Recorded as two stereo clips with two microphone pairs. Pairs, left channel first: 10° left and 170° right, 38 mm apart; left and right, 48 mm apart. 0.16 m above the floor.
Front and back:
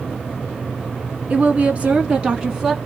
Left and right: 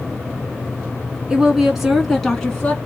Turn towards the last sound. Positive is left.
turn(degrees=135)